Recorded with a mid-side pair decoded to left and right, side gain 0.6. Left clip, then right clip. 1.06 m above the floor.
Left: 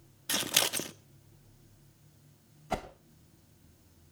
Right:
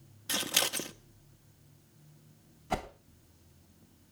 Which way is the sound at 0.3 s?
10° left.